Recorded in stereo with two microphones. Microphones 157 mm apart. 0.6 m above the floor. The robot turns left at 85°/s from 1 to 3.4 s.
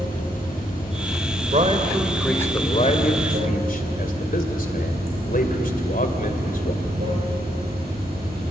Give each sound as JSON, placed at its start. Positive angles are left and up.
{"t": 0.0, "sound": "running water", "azimuth_deg": 115, "distance_m": 9.0}
{"t": 1.5, "sound": "a man speaking", "side_deg": -55, "distance_m": 2.5}